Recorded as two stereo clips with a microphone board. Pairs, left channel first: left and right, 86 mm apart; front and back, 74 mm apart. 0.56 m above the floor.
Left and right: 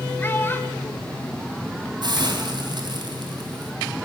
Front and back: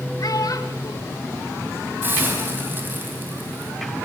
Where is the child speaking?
25° left, 1.0 m.